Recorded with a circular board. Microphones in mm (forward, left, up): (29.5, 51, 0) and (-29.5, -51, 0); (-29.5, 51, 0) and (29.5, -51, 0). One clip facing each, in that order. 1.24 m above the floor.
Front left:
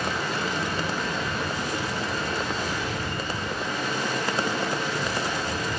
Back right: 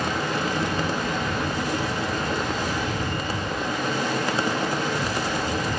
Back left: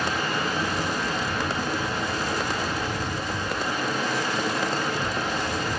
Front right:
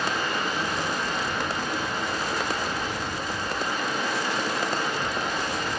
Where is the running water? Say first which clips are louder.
Back right 3 dB, back left 1 dB; 160° right, 7.5 m.